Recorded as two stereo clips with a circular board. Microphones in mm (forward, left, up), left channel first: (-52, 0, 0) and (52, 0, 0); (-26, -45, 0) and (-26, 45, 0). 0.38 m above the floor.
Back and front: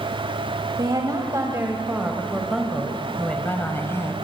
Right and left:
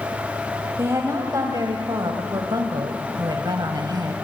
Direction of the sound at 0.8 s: 40° left.